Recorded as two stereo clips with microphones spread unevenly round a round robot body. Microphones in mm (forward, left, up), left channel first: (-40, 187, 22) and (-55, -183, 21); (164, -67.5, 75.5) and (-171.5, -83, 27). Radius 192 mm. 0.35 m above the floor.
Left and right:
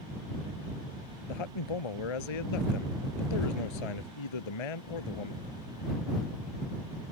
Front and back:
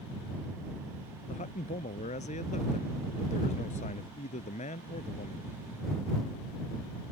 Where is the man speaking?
75° left.